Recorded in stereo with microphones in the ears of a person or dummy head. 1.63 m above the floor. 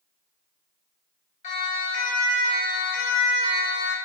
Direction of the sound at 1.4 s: 45° left (ahead or behind).